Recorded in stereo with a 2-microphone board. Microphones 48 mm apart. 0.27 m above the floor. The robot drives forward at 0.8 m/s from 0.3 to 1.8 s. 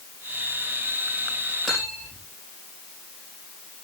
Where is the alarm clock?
I don't hear an alarm clock.